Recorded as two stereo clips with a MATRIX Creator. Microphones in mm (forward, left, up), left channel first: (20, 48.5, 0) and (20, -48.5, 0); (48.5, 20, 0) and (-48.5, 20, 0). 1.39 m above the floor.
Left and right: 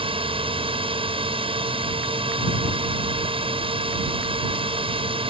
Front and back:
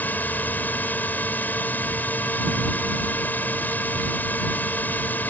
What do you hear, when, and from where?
0.0 s a drone: 70° right